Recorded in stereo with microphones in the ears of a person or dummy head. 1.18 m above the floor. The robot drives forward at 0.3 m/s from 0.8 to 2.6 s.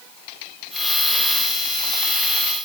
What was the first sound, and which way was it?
Only background noise.